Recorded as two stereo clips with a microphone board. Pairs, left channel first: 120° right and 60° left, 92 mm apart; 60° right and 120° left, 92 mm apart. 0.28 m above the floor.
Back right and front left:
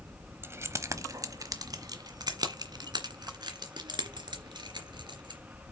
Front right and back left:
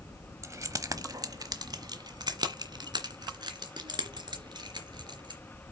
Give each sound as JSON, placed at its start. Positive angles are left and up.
{"t": 0.4, "sound": "keys jangling", "azimuth_deg": 100, "distance_m": 0.9}